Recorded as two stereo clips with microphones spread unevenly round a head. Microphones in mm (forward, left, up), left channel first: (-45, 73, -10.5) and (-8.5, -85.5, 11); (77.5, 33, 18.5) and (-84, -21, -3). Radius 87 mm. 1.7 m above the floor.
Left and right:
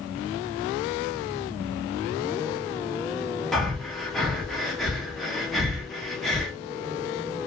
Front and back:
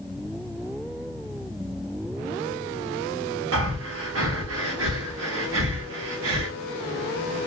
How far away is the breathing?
About 0.9 m.